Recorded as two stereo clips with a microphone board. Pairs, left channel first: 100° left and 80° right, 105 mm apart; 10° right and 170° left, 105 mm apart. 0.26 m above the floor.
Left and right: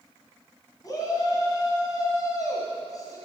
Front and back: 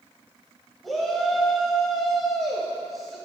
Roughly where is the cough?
I don't hear a cough.